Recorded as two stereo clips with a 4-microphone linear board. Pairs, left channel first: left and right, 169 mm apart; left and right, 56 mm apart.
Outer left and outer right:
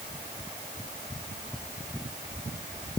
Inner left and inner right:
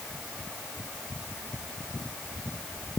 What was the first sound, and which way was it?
Only background noise.